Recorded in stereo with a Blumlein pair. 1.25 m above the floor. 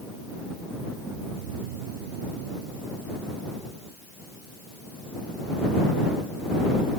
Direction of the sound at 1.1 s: 50° right.